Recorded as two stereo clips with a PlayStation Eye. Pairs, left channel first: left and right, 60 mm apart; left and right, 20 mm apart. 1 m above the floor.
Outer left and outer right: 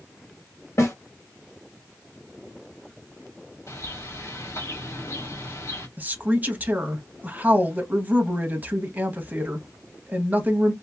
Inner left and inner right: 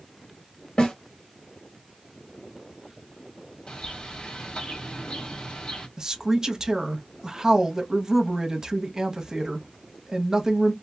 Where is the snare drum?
50° left (ahead or behind), 1.5 m.